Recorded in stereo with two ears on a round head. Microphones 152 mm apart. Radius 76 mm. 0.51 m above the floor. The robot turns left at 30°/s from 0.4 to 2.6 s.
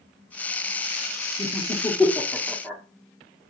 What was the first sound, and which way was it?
Laughter, 15° left (ahead or behind).